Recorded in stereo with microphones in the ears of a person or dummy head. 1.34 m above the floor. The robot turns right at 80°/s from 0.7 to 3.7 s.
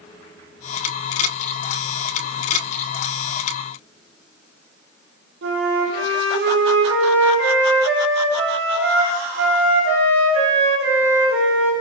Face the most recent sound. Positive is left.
turn(degrees=-80)